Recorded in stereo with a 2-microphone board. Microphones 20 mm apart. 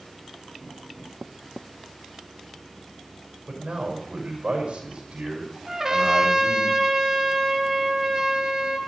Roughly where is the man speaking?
Right.